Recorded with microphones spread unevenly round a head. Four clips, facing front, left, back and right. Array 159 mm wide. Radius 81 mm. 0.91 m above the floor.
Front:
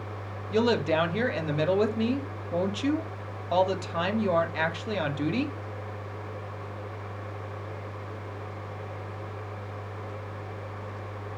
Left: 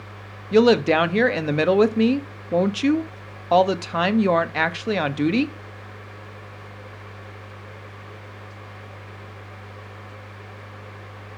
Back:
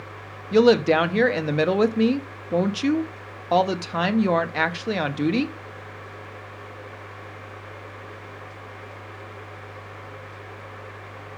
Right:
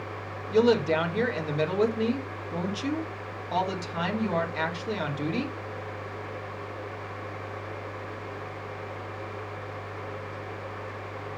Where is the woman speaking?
120° left, 1.3 m.